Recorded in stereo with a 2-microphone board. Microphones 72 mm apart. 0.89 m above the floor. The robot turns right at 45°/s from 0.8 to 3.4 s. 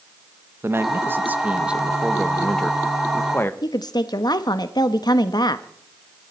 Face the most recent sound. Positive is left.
turn(degrees=70)  # may be behind; listen again after turning